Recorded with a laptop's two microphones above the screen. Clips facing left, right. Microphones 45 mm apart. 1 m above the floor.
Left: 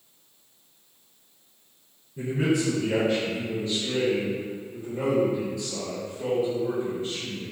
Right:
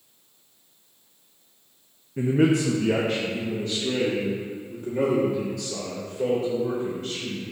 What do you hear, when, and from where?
2.2 s a man speaking: 60° right (ahead or behind), 0.6 m